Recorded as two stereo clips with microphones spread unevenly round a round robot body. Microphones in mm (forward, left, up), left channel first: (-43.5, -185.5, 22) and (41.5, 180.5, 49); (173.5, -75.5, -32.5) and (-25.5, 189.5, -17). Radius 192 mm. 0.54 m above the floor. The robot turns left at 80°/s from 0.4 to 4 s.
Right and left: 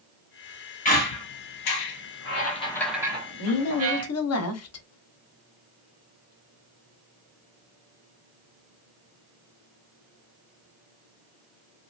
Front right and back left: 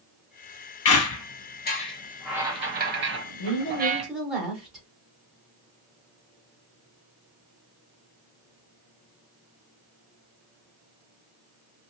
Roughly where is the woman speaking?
Right.